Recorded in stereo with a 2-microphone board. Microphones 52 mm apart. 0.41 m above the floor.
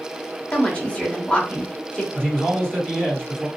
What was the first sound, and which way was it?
A woman speaking, 25° left (ahead or behind).